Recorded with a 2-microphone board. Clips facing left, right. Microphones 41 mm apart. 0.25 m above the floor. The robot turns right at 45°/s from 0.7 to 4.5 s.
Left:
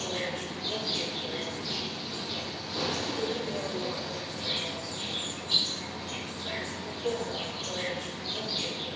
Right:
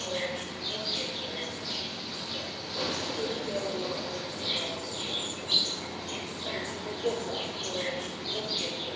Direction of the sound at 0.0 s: 40° left.